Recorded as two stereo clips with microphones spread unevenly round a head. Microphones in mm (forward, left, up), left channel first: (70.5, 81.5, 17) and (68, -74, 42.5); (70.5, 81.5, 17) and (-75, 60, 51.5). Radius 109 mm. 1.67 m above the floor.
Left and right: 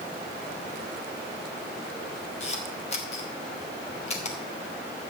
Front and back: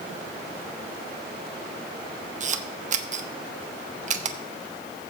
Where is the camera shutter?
150° left, 1.1 m.